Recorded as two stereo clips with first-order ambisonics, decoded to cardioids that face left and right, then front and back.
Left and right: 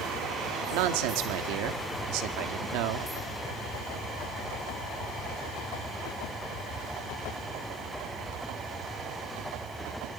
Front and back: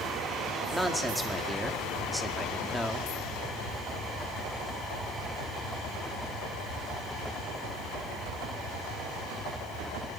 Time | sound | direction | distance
0.7 | a man speaking | 95° right | 1.7 m